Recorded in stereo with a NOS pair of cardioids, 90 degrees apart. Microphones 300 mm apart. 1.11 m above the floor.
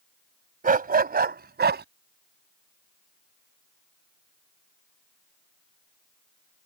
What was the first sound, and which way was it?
A dog barking, 30° right.